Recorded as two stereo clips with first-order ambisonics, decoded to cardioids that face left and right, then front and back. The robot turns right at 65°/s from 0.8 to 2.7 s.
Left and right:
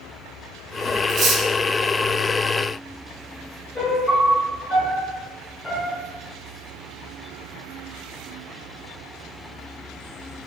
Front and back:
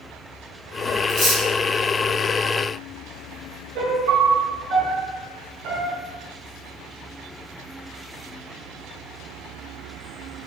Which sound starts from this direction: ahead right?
Cutlery clinking, at 1.1 s.